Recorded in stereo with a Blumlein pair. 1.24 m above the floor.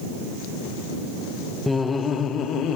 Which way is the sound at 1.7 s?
5° left.